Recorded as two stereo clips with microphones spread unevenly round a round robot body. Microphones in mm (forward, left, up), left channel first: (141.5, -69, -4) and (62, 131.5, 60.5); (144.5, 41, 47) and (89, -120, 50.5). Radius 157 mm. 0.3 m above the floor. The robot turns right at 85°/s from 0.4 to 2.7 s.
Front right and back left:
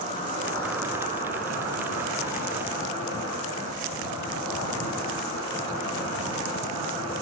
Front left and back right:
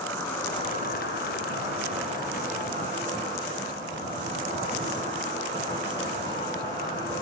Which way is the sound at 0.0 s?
5° right.